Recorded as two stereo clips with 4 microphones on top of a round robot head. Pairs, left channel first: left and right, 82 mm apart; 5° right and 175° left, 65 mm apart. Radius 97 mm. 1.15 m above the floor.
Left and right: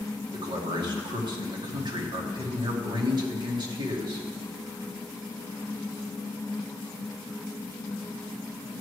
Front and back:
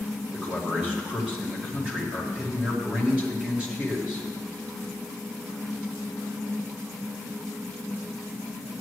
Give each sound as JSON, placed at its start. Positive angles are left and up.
{"t": 0.3, "sound": "a man speaking", "azimuth_deg": -115, "distance_m": 2.0}